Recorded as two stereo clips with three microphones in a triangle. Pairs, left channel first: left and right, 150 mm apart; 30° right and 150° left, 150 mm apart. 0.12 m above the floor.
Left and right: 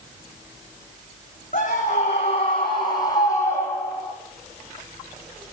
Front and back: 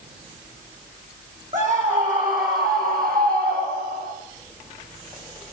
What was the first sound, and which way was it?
A scream, 120° left.